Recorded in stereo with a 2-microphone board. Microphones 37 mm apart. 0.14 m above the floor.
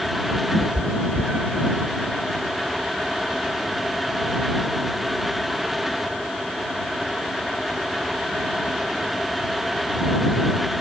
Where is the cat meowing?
5° right (ahead or behind); by 1.8 s 65° right (ahead or behind).